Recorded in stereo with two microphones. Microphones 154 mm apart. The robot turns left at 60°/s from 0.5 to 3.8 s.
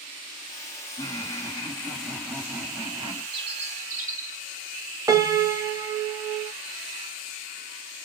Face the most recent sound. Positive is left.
turn(degrees=-25)  # may be behind; listen again after turning